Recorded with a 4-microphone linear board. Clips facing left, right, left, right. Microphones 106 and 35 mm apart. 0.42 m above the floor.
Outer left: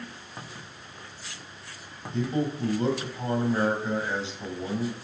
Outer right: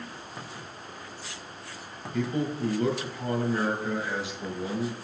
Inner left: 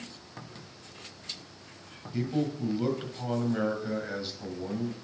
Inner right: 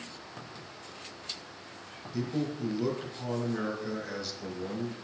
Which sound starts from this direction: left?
A man speaking, at 2.1 s.